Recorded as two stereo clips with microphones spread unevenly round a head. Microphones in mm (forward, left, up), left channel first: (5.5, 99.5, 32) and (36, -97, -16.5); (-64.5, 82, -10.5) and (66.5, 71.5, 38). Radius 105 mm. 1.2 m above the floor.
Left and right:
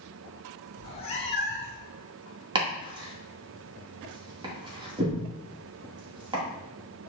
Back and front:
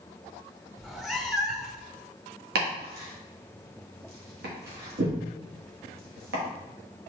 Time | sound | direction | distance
0.8 | a cat meowing | 65° left | 1.2 m
2.5 | chopping | 15° right | 2 m